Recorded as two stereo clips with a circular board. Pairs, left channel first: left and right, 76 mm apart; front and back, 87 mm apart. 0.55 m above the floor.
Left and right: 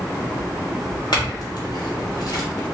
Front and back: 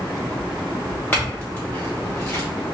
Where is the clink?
70° left, 1.1 m.